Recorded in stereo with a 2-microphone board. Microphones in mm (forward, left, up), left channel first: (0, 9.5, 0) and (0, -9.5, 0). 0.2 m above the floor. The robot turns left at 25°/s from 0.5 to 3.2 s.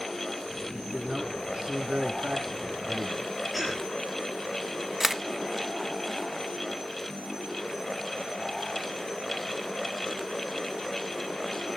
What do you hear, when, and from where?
0.7 s a man speaking: 45° right, 2.5 m; by 3.2 s 110° right, 2.5 m
3.5 s a cough: 5° left (ahead or behind), 5.5 m
5.0 s a camera shutter: 10° right (ahead or behind), 0.6 m